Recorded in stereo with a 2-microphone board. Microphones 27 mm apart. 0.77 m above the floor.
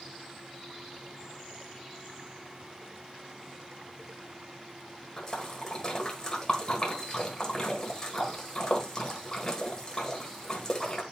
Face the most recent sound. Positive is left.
turn(degrees=15)  # may be behind; listen again after turning